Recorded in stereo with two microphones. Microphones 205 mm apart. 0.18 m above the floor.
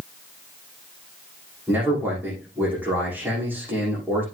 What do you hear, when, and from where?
1.7 s a man speaking: 10° right (ahead or behind), 7.5 m